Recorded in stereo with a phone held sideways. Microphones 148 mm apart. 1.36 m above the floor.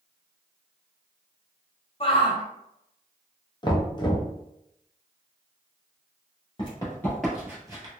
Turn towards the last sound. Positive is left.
turn(degrees=-30)  # may be behind; listen again after turning